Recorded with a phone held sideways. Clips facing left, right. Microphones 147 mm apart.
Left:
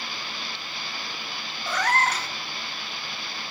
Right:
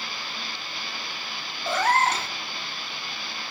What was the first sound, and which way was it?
A cat meowing, 25° right (ahead or behind).